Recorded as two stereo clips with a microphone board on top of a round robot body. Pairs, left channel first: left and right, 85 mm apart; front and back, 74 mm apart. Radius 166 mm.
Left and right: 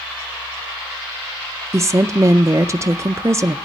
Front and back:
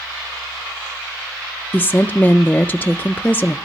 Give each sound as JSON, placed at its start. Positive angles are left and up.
{"t": 1.7, "sound": "a woman speaking", "azimuth_deg": -55, "distance_m": 0.7}